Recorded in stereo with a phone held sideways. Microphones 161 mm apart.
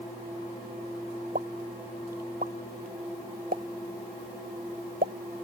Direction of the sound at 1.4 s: 70° right (ahead or behind).